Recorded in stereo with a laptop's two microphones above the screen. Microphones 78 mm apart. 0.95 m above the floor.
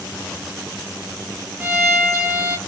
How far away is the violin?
About 1.1 m.